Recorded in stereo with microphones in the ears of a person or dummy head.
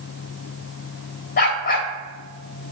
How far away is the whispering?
No whispering in this recording.